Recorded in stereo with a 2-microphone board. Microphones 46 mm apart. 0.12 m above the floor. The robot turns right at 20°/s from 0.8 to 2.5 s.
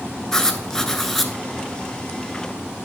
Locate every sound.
0.3 s writing: 10° left (ahead or behind), 0.6 m; by 1.3 s 5° left (ahead or behind), 0.6 m